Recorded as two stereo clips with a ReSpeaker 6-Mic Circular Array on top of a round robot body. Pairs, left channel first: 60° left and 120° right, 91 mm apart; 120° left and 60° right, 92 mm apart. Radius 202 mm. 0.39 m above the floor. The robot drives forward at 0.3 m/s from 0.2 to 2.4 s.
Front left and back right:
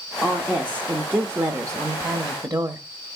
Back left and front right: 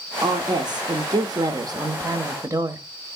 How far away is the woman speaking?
About 1.1 m.